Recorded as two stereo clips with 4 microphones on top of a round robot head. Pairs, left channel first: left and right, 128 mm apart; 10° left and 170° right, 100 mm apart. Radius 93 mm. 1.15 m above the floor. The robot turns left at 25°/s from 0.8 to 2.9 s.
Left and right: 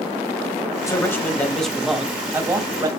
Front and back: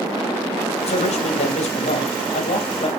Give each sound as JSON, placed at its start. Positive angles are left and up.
{"t": 0.9, "sound": "a man speaking", "azimuth_deg": 25, "distance_m": 1.6}